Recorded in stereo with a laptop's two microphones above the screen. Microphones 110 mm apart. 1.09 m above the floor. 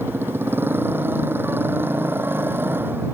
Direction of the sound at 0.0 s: 20° right (ahead or behind).